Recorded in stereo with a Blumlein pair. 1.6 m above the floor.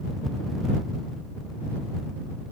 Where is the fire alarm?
I don't hear a fire alarm.